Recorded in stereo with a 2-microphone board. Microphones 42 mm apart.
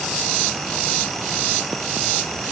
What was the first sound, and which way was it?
Only background noise.